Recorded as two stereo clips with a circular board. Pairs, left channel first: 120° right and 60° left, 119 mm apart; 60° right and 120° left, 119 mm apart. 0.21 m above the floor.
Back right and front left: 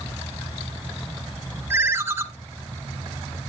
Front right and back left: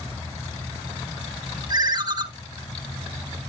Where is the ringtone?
110° left, 0.6 m.